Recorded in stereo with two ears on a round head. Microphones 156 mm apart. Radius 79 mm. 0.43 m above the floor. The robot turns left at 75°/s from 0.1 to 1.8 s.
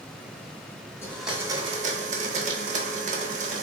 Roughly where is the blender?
Ahead.